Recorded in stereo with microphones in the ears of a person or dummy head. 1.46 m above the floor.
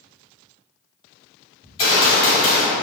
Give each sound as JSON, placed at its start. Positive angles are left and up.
{"t": 1.6, "sound": "a gunshot", "side_deg": 30, "distance_m": 1.6}